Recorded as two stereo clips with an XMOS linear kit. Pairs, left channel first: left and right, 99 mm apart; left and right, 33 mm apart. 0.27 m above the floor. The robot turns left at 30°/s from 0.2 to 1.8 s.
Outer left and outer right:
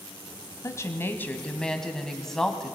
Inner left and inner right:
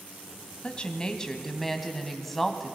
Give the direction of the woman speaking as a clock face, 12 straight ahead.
11 o'clock.